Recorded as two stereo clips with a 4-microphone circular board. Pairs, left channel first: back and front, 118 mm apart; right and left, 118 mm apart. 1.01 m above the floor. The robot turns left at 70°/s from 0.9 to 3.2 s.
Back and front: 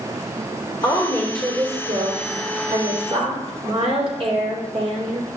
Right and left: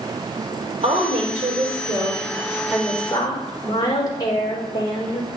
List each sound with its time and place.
0.8 s a woman speaking: 130° left, 3.5 m; by 5.3 s 35° right, 3.5 m